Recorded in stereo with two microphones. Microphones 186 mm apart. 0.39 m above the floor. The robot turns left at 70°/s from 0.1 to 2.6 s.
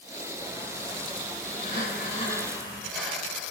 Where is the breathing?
70° left, 4.5 m; by 3.5 s straight ahead, 4.5 m.